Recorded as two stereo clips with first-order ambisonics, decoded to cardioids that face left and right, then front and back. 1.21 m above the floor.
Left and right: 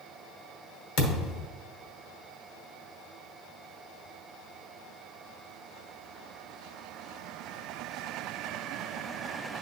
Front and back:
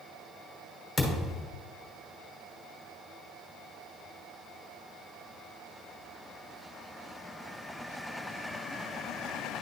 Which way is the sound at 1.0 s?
85° left.